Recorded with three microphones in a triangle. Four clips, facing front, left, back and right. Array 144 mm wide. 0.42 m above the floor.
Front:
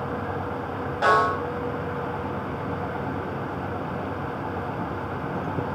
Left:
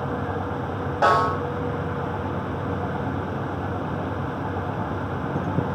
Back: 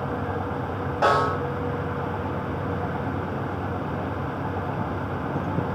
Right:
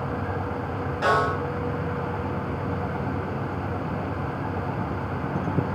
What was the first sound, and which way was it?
A snare drum, 95° left.